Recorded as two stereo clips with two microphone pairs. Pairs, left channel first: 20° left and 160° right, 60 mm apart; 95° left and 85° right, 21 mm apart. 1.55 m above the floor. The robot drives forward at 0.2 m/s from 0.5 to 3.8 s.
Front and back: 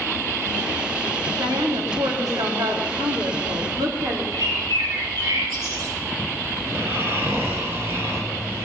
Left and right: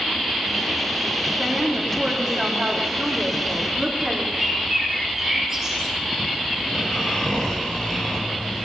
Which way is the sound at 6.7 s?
145° left.